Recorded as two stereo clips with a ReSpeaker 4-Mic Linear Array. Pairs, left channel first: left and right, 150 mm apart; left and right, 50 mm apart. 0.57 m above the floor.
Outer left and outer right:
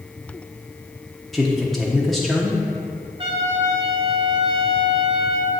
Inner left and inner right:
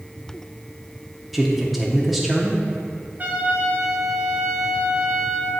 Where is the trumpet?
35° right (ahead or behind), 3 m.